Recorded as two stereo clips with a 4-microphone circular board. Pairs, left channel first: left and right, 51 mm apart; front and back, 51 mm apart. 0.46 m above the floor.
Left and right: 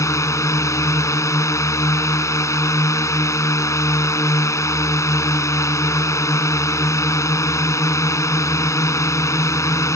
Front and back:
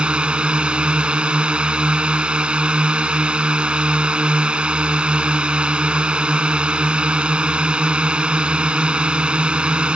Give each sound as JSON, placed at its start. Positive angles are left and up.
{"t": 0.0, "sound": "a drone", "azimuth_deg": 110}